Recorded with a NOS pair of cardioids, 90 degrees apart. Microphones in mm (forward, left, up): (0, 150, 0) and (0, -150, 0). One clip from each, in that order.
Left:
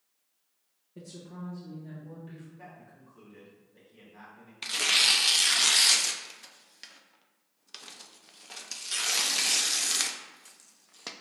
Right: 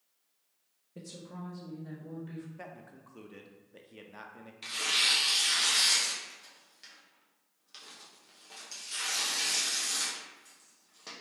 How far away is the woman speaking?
About 0.8 m.